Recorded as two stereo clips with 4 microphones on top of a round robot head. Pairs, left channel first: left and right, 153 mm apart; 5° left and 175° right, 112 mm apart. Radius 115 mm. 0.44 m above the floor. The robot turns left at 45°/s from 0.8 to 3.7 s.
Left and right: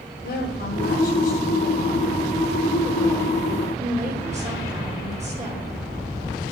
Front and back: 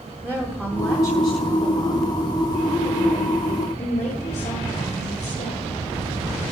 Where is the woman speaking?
110° left, 2.5 m; by 5.8 s 20° right, 2.5 m.